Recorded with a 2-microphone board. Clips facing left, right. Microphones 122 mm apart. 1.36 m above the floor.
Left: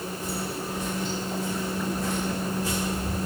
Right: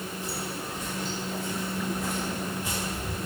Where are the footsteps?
45° left (ahead or behind), 1.8 m; by 3.2 s 30° right (ahead or behind), 1.9 m.